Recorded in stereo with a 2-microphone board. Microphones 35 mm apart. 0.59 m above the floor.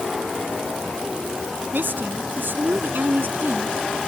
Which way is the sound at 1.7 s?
80° right.